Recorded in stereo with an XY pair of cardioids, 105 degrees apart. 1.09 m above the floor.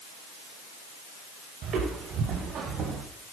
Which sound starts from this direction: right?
Footsteps, at 1.6 s.